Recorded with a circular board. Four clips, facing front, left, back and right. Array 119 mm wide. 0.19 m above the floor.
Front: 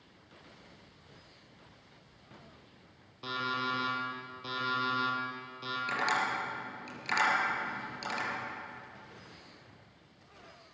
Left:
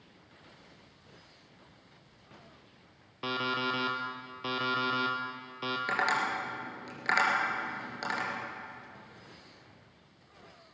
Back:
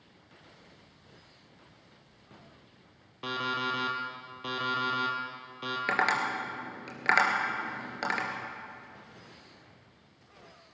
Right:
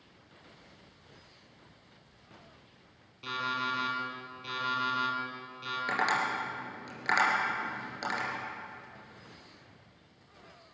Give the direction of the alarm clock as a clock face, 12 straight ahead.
8 o'clock.